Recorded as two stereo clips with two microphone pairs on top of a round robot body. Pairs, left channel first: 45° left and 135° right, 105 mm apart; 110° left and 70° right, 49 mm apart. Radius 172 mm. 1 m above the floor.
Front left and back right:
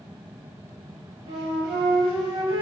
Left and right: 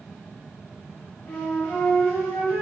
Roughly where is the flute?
Behind.